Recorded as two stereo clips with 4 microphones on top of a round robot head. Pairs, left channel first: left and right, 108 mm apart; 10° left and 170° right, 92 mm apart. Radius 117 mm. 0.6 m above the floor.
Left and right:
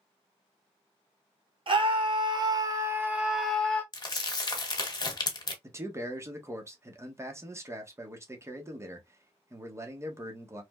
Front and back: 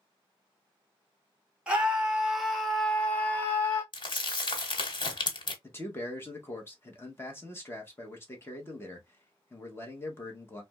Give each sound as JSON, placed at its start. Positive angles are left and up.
{"t": 1.7, "sound": "a scream", "azimuth_deg": -95, "distance_m": 1.6}
{"t": 3.9, "sound": "crumpling", "azimuth_deg": 40, "distance_m": 1.4}
{"t": 5.6, "sound": "a man speaking", "azimuth_deg": -40, "distance_m": 1.1}